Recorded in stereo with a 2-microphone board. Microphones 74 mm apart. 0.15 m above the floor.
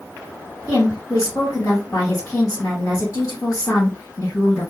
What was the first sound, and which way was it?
A woman speaking, 50° left (ahead or behind).